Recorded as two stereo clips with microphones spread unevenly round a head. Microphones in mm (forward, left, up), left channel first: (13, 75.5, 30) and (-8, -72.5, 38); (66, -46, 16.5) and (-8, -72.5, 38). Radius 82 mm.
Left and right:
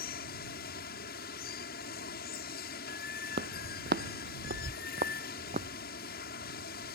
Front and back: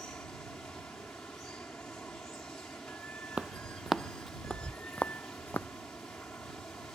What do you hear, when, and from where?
0.0 s running water: 105° left
3.4 s footsteps: 105° right; by 5.7 s 50° right